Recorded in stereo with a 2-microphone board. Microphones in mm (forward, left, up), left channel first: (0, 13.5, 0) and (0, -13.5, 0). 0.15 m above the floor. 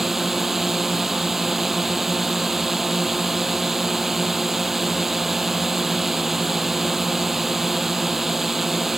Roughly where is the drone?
Centre.